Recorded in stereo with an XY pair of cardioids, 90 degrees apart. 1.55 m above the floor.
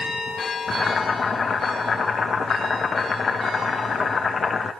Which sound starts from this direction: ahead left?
Boiling, at 0.7 s.